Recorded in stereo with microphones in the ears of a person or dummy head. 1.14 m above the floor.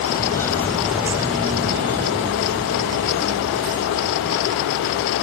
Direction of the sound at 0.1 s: 20° left (ahead or behind).